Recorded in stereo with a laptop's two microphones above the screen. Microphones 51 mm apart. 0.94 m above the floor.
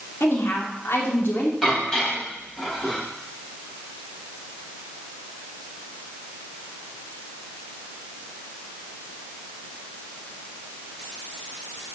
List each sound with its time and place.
0.2 s a woman speaking: 55° left (ahead or behind), 2 m
1.6 s dishes clattering: 15° left (ahead or behind), 4 m